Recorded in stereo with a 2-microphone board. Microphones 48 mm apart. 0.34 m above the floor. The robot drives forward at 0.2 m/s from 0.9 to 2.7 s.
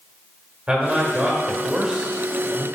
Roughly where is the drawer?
I don't hear a drawer.